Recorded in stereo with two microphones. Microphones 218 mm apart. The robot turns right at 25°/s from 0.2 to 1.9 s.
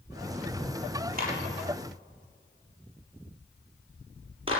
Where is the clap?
45° right (ahead or behind), 7.5 m; by 4.6 s 25° right (ahead or behind), 7.5 m.